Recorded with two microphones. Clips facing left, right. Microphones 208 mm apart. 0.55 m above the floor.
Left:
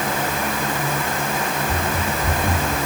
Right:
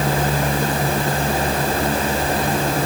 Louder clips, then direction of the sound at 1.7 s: Right 4 dB; 55° left (ahead or behind).